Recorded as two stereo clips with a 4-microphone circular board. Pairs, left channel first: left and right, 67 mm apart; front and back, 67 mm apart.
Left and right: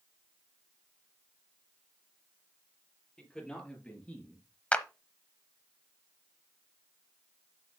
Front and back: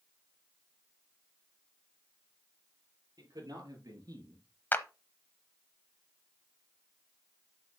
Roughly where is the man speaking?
Behind.